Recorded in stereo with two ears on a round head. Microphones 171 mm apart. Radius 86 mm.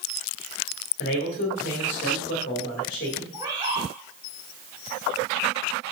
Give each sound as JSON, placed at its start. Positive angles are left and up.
{"t": 1.0, "sound": "a man speaking", "side_deg": 45, "distance_m": 1.9}
{"t": 3.3, "sound": "a bird", "side_deg": -25, "distance_m": 4.0}